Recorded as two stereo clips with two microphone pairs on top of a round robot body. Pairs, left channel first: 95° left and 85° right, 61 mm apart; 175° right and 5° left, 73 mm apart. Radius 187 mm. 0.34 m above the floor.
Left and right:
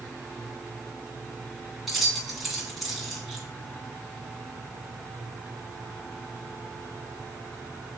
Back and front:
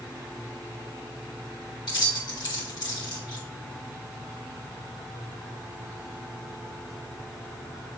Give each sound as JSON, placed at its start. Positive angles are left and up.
{"t": 1.9, "sound": "keys jangling", "azimuth_deg": -175, "distance_m": 3.0}